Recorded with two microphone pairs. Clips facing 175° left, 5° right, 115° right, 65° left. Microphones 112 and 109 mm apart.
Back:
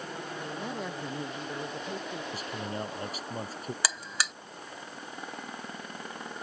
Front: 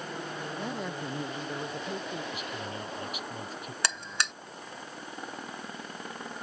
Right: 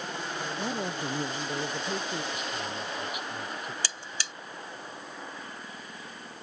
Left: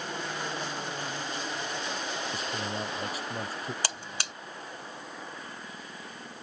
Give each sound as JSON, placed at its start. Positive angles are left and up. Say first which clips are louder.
{"t": 0.6, "sound": "a man speaking", "louder": "front 2 dB, right 3 dB", "azimuth_deg": -95}
{"t": 2.3, "sound": "a man speaking", "louder": "back 2 dB, left 1 dB", "azimuth_deg": 120}
{"t": 3.8, "sound": "a buzzer", "louder": "front 3 dB, left 3 dB", "azimuth_deg": 90}